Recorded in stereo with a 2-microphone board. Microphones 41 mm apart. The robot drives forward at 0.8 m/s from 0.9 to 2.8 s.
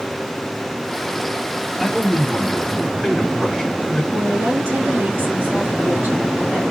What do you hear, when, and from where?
1.8 s a man speaking: centre (ahead or behind), 2.5 m
4.1 s a woman speaking: 65° right (ahead or behind), 3 m